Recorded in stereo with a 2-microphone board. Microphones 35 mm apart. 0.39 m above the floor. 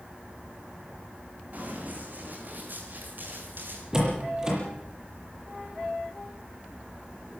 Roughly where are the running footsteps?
Right.